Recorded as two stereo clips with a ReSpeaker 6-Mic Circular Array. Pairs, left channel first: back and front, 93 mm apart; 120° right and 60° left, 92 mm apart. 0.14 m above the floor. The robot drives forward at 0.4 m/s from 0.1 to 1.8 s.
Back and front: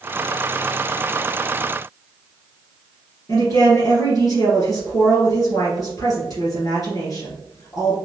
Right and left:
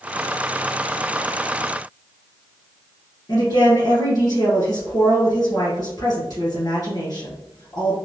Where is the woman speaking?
150° right, 1.9 m.